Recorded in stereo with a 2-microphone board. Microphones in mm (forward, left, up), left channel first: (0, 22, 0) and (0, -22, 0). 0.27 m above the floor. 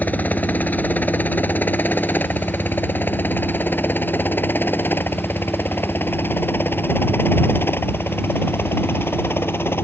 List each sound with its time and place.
0.0 s a helicopter: 40° left (ahead or behind); by 9.8 s 55° left (ahead or behind)